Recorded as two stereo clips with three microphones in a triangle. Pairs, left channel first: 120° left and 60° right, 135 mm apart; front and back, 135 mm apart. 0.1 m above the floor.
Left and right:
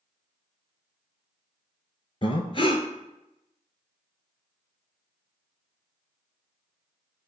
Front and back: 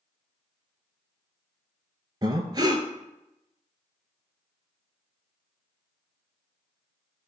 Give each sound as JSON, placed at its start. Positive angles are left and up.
{"t": 2.2, "sound": "breathing", "azimuth_deg": 140, "distance_m": 0.5}